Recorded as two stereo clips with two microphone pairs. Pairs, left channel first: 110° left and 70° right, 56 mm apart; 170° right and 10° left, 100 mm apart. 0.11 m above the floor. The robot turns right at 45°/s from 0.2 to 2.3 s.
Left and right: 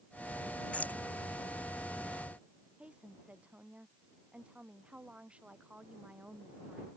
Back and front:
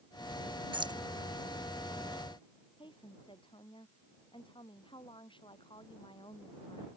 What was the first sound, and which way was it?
Keys jangling, 45° left.